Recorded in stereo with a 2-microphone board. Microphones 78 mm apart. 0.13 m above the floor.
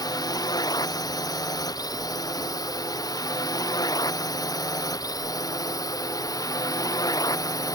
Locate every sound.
0.0 s a drone: 55° left (ahead or behind); by 7.8 s 50° left (ahead or behind)